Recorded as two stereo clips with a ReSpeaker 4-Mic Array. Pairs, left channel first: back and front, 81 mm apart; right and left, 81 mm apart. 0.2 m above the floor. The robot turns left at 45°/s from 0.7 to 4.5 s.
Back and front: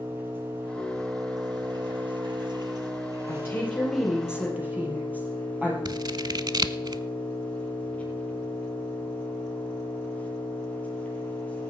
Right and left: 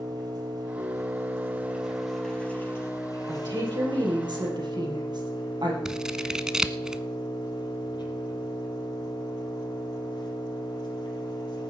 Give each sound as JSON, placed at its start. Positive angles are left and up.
{"t": 0.0, "sound": "an engine running", "azimuth_deg": 65, "distance_m": 3.5}
{"t": 3.3, "sound": "a woman speaking", "azimuth_deg": 125, "distance_m": 4.0}
{"t": 5.8, "sound": "scissors", "azimuth_deg": 10, "distance_m": 0.5}